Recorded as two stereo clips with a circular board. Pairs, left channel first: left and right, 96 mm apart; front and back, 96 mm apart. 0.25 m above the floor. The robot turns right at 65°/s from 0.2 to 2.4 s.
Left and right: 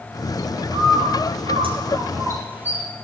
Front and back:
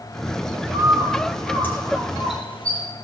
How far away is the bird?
About 3 m.